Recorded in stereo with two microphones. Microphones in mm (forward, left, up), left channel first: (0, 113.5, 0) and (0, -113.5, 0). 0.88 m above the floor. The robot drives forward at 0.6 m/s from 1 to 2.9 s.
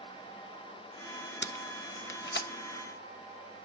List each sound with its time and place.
1.4 s tape being pulled: 50° left (ahead or behind), 0.5 m; by 2.5 s 45° left (ahead or behind), 0.6 m